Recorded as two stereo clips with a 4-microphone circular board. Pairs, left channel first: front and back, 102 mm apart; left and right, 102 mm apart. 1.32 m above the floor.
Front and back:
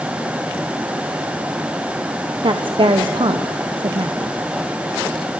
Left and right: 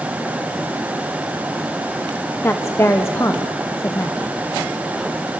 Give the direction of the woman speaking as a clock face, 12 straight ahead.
7 o'clock.